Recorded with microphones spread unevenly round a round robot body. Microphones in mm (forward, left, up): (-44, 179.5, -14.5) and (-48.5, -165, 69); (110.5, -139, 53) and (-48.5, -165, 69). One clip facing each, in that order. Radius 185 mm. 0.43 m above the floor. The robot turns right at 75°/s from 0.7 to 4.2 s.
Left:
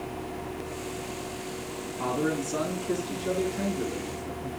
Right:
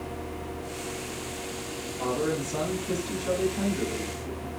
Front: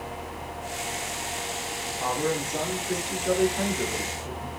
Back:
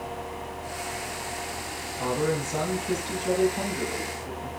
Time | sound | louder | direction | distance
2.0 | a man speaking | even, back 1 dB | 140° left | 5.5 m